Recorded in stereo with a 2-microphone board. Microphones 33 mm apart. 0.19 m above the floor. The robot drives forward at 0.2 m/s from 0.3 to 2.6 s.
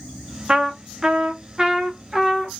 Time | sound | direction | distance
0.5 | a trumpet | 30° right (ahead or behind) | 0.5 m